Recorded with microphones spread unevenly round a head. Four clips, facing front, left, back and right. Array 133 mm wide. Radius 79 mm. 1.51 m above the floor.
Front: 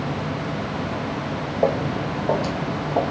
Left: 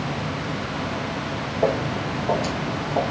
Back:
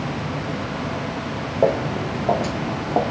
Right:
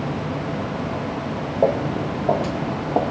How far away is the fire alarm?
No fire alarm in this recording.